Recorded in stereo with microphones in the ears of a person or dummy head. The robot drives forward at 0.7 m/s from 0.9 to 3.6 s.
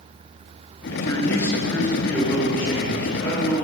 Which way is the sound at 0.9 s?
10° left (ahead or behind).